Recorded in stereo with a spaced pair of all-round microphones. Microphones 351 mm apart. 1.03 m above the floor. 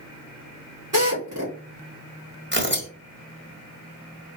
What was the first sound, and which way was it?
A drill, 60° right (ahead or behind).